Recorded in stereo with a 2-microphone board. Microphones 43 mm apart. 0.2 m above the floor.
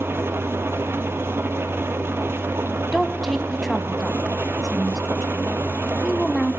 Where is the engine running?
70° right (ahead or behind), 1.2 m.